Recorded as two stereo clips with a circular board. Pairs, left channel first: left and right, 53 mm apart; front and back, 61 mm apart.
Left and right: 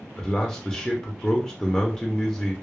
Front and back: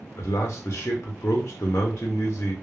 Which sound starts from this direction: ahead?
A man speaking, at 0.2 s.